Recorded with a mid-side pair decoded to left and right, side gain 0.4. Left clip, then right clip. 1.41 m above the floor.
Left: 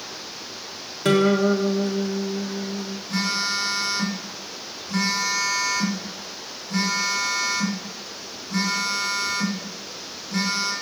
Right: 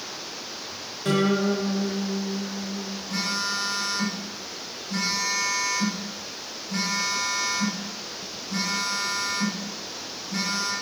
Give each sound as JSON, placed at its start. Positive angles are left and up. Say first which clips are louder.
{"t": 1.1, "sound": "a guitar", "louder": "left 5 dB", "azimuth_deg": 65, "distance_m": 1.6}
{"t": 3.1, "sound": "a phone buzzing", "louder": "left 3 dB", "azimuth_deg": 25, "distance_m": 2.5}